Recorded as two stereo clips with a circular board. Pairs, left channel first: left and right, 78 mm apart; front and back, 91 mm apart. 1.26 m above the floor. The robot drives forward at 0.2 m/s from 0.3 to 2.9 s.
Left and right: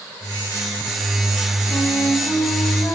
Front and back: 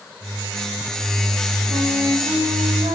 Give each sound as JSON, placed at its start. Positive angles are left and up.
{"t": 1.7, "sound": "a flute", "azimuth_deg": 165, "distance_m": 1.3}